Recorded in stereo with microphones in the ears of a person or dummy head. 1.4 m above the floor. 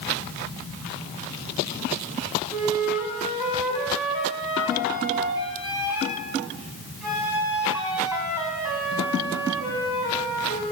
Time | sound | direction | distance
2.5 | a flute | 5° right (ahead or behind) | 6.5 m